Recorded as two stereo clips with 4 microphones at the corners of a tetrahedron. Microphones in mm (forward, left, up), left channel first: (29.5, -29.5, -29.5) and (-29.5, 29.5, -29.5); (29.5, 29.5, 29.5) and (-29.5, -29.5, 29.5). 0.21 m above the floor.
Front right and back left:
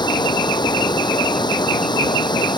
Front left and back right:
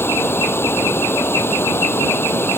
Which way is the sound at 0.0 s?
15° right.